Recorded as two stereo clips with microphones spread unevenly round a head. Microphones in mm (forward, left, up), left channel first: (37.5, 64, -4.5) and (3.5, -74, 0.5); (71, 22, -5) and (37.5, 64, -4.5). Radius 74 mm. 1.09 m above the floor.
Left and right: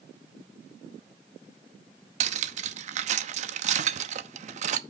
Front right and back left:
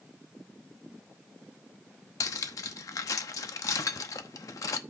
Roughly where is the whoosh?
I don't hear a whoosh.